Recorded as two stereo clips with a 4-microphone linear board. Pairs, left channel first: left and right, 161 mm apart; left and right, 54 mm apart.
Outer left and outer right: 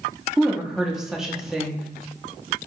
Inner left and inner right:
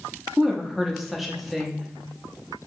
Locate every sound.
0.4 s a woman speaking: 5° right (ahead or behind), 0.7 m